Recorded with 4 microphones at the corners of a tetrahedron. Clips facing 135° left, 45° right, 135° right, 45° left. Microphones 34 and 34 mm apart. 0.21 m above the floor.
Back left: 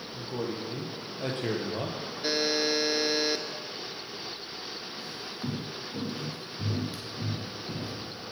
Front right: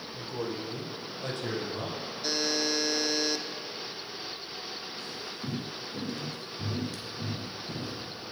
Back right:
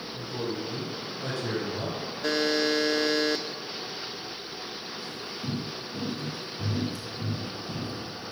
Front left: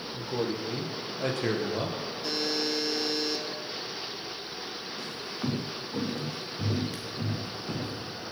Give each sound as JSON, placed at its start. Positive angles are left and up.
{"t": 0.1, "sound": "a man speaking", "azimuth_deg": 70, "distance_m": 6.5}
{"t": 2.2, "sound": "a buzzer", "azimuth_deg": -160, "distance_m": 1.4}
{"t": 5.0, "sound": "footsteps", "azimuth_deg": 60, "distance_m": 4.0}